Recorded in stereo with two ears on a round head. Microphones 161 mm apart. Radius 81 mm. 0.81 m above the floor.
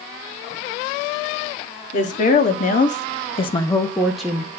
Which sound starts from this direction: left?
A woman speaking, at 1.9 s.